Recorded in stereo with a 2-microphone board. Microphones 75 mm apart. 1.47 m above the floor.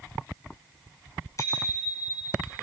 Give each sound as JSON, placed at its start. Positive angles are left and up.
{"t": 1.4, "sound": "a bicycle bell", "side_deg": 40, "distance_m": 10.0}